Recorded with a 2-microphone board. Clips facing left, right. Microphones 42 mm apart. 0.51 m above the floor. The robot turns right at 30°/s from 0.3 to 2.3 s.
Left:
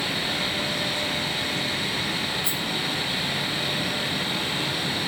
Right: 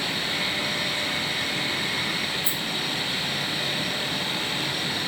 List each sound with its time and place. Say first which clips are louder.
2.4 s a rattle: left 1 dB; 25° right (ahead or behind), 1.2 m